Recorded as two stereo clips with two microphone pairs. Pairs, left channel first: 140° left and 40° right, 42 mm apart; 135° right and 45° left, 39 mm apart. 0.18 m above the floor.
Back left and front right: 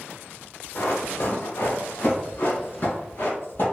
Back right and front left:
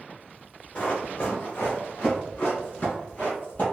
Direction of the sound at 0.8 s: 165° left.